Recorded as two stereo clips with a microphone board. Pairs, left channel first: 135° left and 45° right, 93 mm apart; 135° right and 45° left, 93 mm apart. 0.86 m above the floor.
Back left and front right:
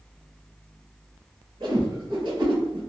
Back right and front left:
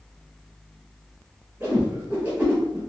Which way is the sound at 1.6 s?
20° right.